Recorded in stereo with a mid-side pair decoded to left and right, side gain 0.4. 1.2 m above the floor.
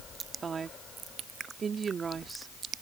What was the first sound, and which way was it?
A woman speaking, 45° right.